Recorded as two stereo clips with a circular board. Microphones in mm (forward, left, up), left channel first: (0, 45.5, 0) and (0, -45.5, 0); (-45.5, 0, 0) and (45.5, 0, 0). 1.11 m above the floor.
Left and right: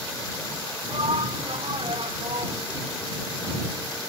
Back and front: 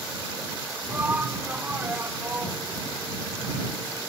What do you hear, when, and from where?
0.9 s a shout: 70° right